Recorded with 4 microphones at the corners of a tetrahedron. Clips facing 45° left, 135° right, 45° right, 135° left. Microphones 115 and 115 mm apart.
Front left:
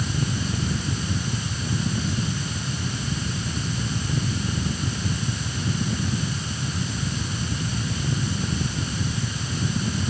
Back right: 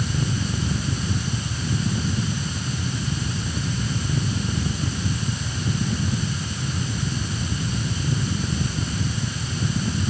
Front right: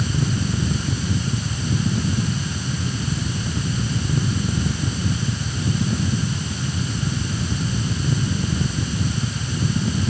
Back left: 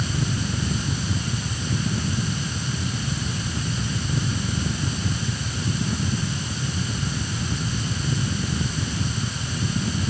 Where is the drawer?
No drawer in this recording.